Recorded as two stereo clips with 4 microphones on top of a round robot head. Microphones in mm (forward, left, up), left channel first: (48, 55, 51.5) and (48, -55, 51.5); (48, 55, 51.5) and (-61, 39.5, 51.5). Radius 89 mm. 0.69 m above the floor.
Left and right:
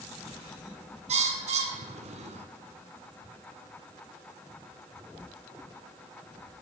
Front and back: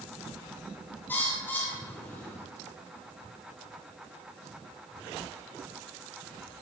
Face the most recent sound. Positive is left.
turn(degrees=-70)